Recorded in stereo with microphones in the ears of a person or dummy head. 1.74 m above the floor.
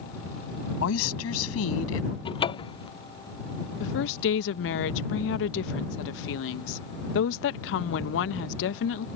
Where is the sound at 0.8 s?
80° left.